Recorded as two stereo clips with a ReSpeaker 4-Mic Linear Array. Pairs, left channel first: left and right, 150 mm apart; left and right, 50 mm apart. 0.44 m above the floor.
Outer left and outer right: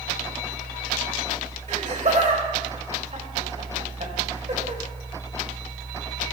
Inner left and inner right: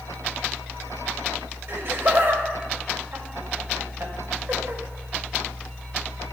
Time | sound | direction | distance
1.7 | laughter | 55° right (ahead or behind) | 2 m